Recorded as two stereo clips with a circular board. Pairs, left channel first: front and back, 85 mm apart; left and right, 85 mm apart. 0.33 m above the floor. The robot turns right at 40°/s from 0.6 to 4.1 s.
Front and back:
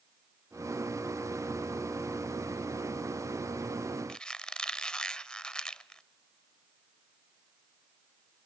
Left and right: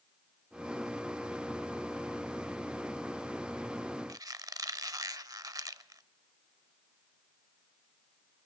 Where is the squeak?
75° right, 0.5 m.